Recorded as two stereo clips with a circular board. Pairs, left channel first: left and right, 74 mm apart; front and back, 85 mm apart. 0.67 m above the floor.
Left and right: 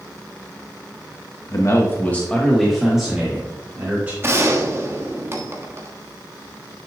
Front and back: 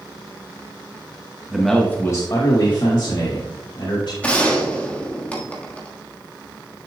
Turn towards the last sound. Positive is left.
turn(degrees=-65)